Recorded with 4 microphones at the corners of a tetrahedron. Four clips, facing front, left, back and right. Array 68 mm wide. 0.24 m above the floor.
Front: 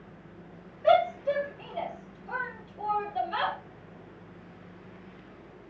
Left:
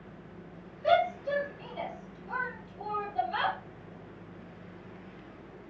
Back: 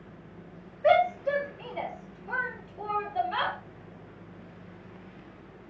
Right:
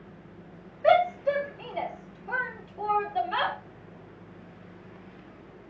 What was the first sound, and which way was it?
A shout, 120° right.